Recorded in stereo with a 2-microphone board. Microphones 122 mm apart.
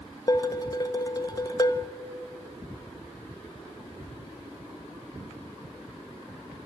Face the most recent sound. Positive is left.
turn(degrees=30)  # may be behind; listen again after turning